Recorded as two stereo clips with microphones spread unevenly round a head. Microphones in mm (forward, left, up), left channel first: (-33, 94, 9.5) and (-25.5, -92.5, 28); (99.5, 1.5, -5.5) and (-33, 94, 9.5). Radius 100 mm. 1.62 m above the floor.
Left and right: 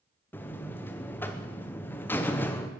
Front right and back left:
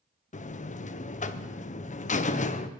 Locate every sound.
0.3 s a buzzer: 10° left, 0.9 m